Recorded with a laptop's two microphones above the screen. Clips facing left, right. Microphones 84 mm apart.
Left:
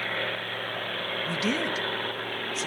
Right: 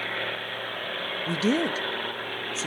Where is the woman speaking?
30° right (ahead or behind), 1.2 m.